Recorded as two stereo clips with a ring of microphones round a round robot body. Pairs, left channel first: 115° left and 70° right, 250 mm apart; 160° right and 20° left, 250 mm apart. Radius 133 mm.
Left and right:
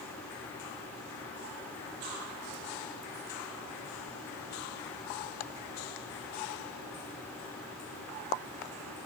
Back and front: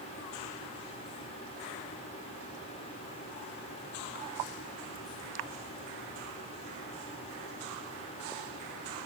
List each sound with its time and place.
Only background noise.